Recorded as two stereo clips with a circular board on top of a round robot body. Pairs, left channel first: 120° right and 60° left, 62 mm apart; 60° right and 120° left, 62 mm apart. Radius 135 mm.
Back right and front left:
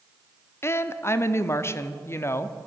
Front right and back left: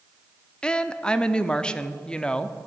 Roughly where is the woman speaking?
Behind right.